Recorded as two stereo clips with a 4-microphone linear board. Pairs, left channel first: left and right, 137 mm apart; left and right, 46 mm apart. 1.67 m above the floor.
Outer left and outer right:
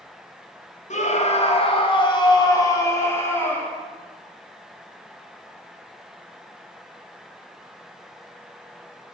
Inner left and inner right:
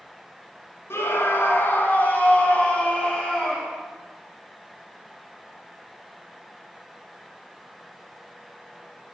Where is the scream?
55° left (ahead or behind), 2.5 m; by 3.8 s 10° left (ahead or behind), 3.5 m.